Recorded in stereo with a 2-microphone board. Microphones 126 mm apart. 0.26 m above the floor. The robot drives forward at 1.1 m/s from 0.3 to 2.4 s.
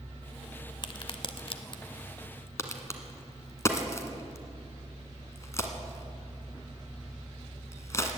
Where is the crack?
40° left (ahead or behind), 0.9 m; by 8.2 s 25° left (ahead or behind), 1.5 m.